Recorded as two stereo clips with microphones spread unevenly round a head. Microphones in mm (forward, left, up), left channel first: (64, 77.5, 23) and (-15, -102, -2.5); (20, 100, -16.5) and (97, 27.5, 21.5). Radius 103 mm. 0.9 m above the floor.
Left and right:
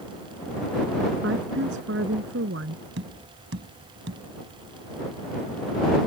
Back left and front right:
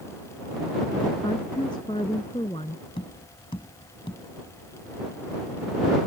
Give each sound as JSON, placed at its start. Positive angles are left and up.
{"t": 1.2, "sound": "a woman speaking", "azimuth_deg": -150}
{"t": 3.0, "sound": "tapping", "azimuth_deg": -155}